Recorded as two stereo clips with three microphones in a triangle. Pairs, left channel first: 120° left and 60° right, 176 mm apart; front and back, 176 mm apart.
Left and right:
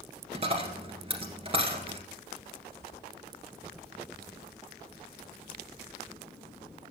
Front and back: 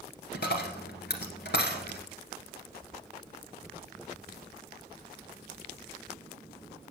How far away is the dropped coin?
About 1.6 m.